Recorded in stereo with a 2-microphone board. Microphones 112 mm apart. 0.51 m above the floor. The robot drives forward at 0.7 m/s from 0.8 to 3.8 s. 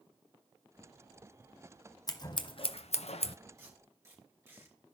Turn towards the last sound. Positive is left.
turn(degrees=-25)  # may be behind; listen again after turning